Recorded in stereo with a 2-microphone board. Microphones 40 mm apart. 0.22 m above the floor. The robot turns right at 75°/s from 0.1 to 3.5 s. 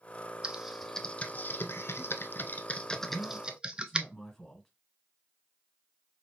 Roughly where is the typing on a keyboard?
Right.